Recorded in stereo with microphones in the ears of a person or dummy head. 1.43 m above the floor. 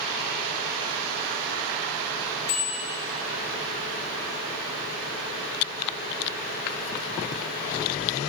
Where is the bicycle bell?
75° left (ahead or behind), 5.5 m.